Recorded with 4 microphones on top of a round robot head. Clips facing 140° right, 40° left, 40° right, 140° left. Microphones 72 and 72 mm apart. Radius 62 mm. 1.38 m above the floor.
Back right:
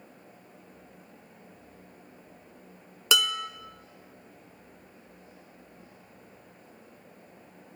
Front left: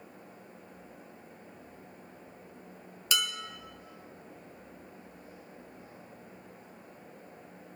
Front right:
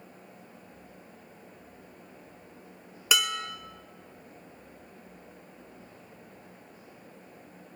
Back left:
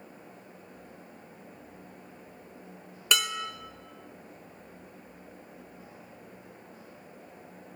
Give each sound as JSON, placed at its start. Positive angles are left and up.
{"t": 3.1, "sound": "dishes clattering", "azimuth_deg": -125, "distance_m": 0.5}